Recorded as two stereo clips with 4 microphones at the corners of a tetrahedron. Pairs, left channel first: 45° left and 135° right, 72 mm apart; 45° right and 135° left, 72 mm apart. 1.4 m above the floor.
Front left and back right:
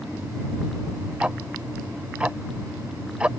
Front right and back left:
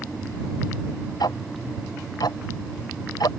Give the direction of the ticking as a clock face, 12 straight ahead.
2 o'clock.